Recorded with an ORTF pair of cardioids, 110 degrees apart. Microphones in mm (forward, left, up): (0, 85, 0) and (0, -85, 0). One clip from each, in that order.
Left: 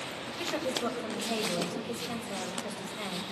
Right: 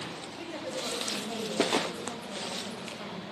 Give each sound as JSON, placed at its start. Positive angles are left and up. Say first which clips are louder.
{"t": 0.3, "sound": "a woman speaking", "louder": "left 5 dB", "azimuth_deg": 45, "distance_m": 6.0}